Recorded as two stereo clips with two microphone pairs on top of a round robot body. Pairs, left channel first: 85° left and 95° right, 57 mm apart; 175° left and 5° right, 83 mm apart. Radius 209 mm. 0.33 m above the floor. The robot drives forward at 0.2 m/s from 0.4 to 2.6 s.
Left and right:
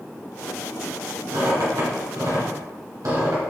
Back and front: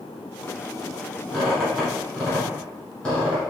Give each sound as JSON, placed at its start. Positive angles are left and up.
{"t": 1.3, "sound": "a squeak", "azimuth_deg": -100, "distance_m": 2.5}